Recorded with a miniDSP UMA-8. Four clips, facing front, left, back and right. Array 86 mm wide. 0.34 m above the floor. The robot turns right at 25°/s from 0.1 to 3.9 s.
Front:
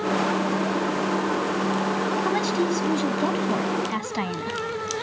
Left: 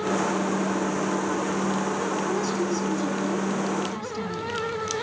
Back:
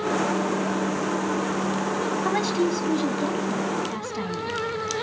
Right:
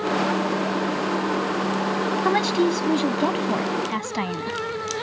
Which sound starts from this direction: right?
A woman speaking, at 2.2 s.